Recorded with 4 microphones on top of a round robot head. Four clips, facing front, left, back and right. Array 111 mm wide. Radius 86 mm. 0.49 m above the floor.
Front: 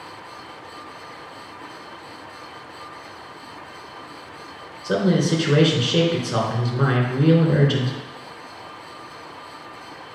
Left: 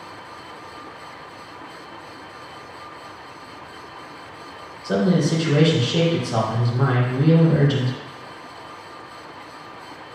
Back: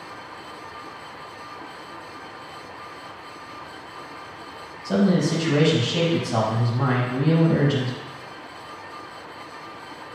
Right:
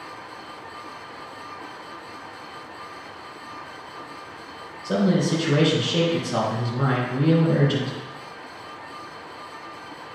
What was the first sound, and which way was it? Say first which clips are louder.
A man speaking: left 2 dB, front 1 dB; 20° left.